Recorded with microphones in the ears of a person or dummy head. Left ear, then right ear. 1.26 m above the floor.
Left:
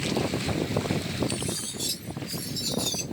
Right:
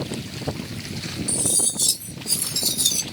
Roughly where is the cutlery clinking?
Right.